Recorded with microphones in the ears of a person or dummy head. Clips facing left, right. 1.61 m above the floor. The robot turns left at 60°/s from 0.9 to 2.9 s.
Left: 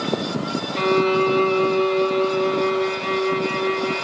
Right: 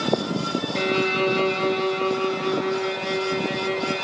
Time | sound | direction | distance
0.8 | a violin | 40° right | 1.5 m